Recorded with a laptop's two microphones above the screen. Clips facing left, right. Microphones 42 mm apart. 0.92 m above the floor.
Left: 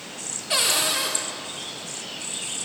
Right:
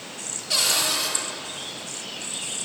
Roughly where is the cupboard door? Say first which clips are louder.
Left 1 dB; centre.